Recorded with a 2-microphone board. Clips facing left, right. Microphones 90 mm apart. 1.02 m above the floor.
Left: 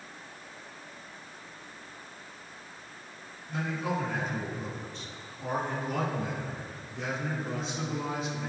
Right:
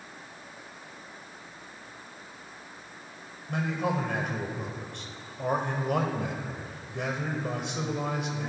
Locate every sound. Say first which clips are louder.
3.5 s a man speaking: right 3 dB; 65° right (ahead or behind), 5 m